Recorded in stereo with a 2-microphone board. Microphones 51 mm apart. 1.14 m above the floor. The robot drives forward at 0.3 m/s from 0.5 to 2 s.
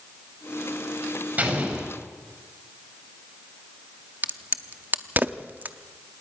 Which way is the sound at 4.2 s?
35° right (ahead or behind).